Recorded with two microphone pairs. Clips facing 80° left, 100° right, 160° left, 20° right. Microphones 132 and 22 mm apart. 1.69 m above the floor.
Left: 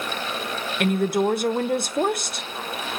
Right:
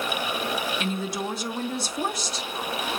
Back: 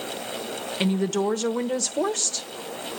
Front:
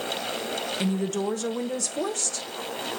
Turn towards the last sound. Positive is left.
turn(degrees=95)